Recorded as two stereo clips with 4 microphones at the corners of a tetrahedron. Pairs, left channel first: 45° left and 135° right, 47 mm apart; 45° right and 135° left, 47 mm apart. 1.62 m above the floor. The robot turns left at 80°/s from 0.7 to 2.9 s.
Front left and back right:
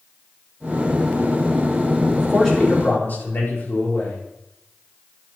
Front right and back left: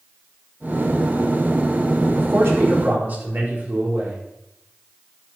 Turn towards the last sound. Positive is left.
turn(degrees=85)